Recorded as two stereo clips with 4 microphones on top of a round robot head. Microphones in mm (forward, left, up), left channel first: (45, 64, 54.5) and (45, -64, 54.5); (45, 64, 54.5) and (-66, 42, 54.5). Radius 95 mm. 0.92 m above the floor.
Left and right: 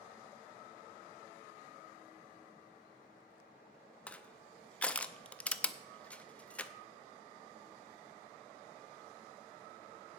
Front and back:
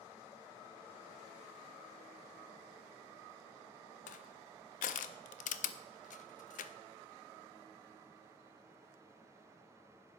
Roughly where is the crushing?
Ahead.